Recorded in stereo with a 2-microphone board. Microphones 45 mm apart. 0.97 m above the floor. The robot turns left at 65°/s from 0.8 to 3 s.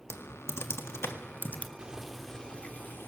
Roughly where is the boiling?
Behind right.